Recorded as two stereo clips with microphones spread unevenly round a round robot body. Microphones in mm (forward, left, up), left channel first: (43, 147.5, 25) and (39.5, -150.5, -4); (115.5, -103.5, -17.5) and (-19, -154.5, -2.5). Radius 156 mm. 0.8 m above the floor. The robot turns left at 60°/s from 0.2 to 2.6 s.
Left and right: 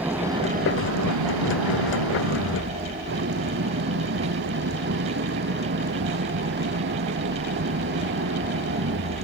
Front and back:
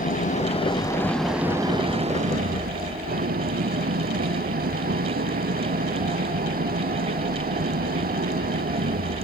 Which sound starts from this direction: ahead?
An engine running, at 0.0 s.